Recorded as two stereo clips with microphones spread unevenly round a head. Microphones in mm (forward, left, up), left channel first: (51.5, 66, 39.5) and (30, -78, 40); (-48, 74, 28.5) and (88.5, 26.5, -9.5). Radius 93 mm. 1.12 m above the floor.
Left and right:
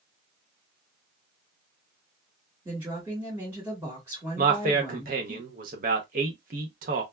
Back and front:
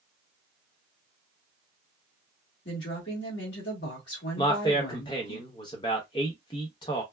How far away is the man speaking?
About 0.8 m.